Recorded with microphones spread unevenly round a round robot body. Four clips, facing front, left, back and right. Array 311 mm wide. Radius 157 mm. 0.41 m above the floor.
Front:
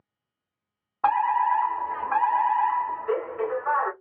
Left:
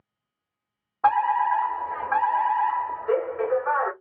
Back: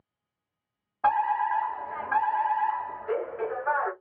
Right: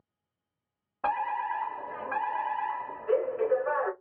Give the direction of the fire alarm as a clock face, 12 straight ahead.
12 o'clock.